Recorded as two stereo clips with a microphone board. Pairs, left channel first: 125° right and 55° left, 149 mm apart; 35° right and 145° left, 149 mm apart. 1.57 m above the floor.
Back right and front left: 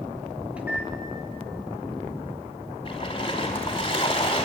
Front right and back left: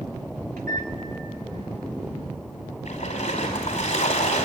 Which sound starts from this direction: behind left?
A microwave, at 0.6 s.